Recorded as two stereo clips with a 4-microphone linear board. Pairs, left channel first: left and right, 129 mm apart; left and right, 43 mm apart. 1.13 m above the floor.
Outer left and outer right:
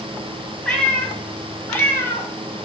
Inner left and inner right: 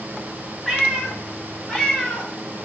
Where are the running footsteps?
I don't hear running footsteps.